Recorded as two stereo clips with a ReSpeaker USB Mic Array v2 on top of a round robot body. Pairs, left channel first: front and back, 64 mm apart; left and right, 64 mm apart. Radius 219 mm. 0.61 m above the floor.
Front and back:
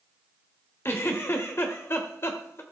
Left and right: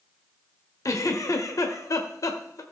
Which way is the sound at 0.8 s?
50° left.